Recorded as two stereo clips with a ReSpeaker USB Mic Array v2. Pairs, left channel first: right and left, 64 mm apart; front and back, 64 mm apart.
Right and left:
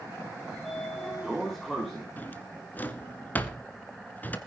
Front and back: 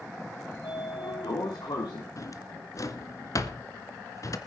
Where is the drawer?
30° right, 1.4 m.